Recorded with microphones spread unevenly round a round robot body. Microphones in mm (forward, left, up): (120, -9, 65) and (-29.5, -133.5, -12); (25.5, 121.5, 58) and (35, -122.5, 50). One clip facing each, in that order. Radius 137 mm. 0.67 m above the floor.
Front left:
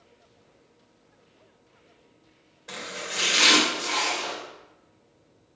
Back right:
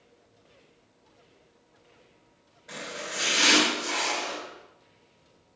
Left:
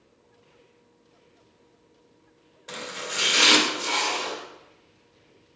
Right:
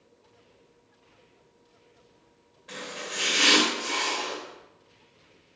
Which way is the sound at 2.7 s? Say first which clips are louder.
Even, left 2 dB; 65° left.